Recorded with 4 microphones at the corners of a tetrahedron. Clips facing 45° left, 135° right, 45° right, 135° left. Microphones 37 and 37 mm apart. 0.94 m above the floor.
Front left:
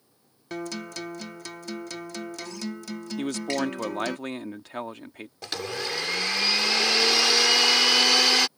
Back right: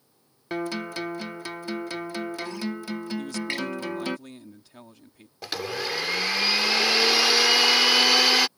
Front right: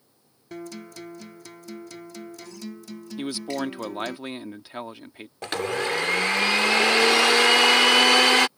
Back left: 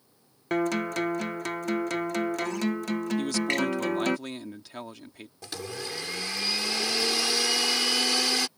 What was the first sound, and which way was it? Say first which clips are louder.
A guitar: back right 4 dB, back left 11 dB; 160° left.